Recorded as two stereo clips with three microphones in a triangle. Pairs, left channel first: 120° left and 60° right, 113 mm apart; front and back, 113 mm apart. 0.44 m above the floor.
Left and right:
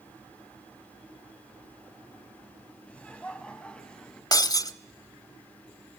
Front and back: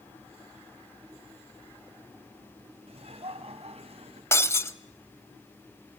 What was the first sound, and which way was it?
Laughter, 160° right.